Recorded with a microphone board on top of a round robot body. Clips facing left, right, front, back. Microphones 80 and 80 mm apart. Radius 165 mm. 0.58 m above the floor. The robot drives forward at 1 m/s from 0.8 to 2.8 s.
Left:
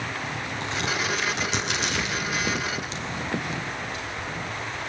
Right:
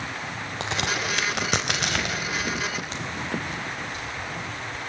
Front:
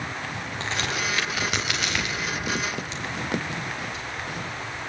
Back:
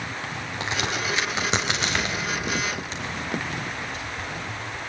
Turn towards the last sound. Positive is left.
turn(degrees=-135)